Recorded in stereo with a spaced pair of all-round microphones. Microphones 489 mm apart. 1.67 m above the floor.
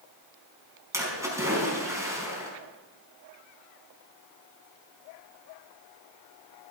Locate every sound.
0.9 s a splash: 5° right (ahead or behind), 4.5 m